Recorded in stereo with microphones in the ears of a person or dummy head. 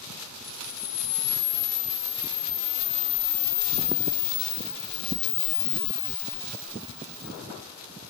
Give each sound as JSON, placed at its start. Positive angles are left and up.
{"t": 0.4, "sound": "a camera shutter", "side_deg": 55, "distance_m": 0.6}